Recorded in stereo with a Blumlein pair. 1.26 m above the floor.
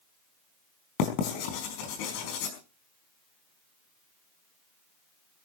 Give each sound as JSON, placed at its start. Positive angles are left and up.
{"t": 1.0, "sound": "writing", "azimuth_deg": 45, "distance_m": 4.5}